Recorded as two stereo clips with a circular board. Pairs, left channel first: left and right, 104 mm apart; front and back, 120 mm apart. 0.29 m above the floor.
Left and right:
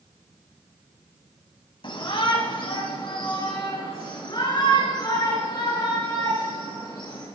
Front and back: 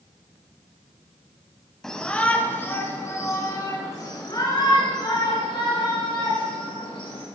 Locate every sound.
1.8 s a shout: 85° left, 2 m; by 7.2 s 45° left, 7 m